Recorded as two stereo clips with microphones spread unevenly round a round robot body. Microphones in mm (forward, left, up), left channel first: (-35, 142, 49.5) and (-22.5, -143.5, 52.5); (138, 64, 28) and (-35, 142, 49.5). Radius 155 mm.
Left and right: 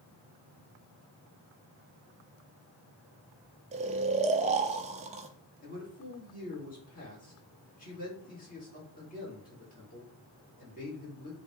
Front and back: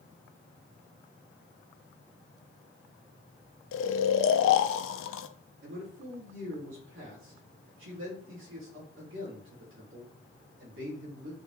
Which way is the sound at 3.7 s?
20° right.